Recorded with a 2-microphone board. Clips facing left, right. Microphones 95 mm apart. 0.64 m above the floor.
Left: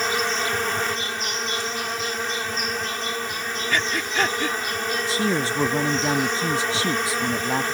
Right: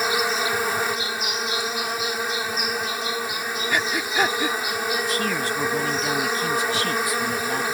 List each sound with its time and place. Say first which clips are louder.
0.0 s an insect: right 1 dB; 10° right (ahead or behind)
3.7 s breathing: even; 10° right (ahead or behind)
5.1 s a man speaking: left 1 dB; 30° left (ahead or behind)